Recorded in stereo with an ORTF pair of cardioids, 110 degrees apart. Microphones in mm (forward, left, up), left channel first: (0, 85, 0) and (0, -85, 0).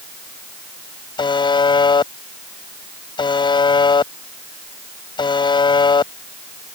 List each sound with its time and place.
1.2 s a buzzer: 25° left